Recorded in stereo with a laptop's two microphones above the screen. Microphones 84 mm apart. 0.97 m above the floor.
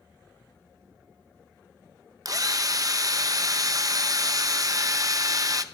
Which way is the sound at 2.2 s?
45° right (ahead or behind).